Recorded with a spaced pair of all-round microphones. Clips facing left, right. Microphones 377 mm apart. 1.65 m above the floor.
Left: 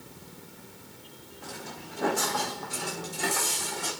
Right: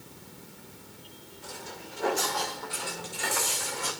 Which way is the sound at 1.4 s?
65° left (ahead or behind).